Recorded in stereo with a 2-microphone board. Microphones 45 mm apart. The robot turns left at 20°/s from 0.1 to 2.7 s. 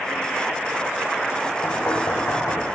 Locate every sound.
1.6 s knocking: 65° left (ahead or behind), 8.5 m; by 2.6 s 85° left, 8.5 m